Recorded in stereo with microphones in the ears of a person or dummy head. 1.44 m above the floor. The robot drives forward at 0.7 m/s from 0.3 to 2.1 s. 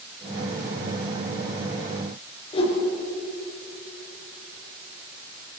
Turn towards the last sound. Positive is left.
turn(degrees=30)  # may be behind; listen again after turning